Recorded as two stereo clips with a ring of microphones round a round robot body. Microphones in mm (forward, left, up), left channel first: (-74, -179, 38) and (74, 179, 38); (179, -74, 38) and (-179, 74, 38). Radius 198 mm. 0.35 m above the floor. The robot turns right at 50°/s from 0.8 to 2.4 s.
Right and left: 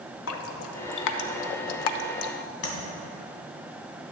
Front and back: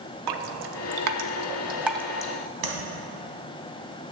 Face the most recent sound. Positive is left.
turn(degrees=-170)